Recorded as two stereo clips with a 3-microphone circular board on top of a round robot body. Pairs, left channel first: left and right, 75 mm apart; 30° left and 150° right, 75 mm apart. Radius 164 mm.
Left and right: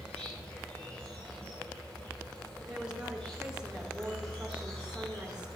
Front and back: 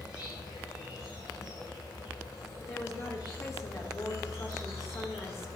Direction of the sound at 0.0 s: 20° left.